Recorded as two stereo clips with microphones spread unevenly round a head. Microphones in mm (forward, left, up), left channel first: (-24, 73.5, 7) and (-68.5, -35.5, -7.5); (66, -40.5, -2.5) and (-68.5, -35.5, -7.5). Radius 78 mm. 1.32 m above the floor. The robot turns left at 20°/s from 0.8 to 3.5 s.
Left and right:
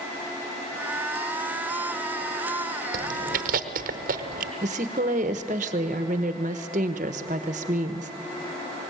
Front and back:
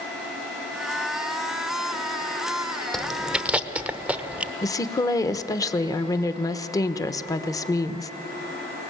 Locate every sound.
2.9 s chewing: 90° right, 0.9 m; by 4.5 s 100° right, 0.9 m
4.6 s a woman speaking: 65° right, 1.1 m